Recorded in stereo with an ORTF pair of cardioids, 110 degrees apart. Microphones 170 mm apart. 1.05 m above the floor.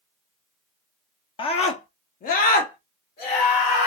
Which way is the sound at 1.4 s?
35° left.